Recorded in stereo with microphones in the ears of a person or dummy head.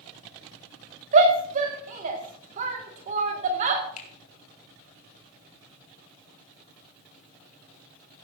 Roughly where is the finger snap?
Left.